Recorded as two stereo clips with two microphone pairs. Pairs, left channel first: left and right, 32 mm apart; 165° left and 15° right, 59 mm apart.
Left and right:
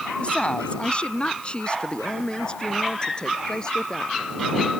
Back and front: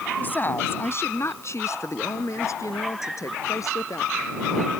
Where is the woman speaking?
120° left; by 4.4 s 155° left.